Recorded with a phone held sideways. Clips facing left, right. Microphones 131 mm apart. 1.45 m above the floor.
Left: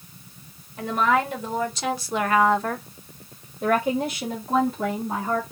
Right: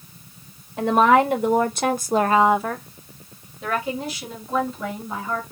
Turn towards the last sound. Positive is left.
turn(degrees=65)  # may be behind; listen again after turning